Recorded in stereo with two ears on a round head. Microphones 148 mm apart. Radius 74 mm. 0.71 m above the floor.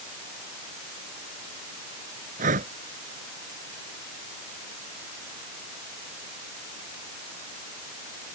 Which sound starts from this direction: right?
Breathing, at 2.4 s.